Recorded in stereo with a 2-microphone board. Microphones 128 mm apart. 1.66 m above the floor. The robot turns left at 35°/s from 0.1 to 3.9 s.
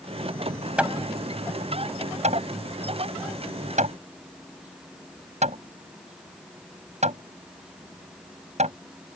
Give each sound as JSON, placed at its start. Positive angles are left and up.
{"t": 0.8, "sound": "hammering", "side_deg": -10}